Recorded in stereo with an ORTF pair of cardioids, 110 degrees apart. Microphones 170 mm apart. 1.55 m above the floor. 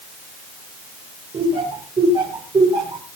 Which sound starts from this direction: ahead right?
Laughter, at 1.3 s.